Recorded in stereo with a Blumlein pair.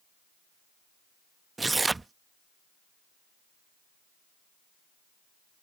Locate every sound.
1.6 s tearing paper: 10° right